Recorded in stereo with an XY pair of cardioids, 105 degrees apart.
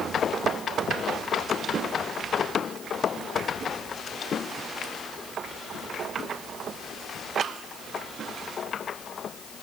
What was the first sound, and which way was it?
Only background noise.